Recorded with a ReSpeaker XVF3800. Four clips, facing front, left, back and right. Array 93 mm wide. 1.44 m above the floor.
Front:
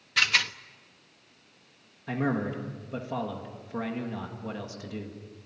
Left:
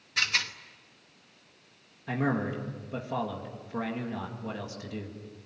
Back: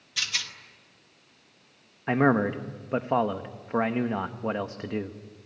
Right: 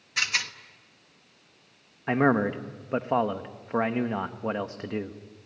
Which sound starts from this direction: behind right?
A man speaking, at 2.1 s.